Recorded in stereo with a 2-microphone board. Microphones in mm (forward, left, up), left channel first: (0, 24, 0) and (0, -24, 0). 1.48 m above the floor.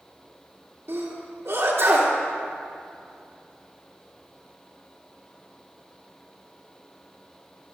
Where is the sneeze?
75° right (ahead or behind), 3 m.